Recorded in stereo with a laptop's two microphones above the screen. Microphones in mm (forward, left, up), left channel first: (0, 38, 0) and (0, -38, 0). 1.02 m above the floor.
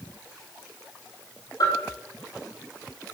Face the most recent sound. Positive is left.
turn(degrees=60)  # may be behind; listen again after turning